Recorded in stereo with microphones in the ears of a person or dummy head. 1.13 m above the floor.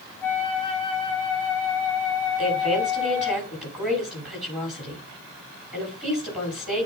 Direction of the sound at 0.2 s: 10° left (ahead or behind).